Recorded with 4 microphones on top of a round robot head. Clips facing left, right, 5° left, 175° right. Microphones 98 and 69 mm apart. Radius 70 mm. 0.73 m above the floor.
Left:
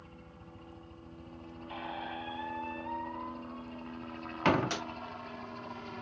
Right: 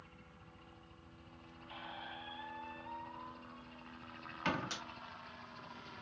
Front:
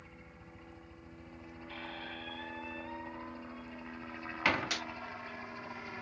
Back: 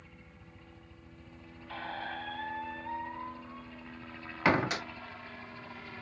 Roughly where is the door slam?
Behind left.